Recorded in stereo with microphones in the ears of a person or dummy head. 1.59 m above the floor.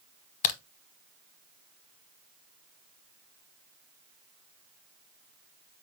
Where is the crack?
40° left (ahead or behind), 0.8 m.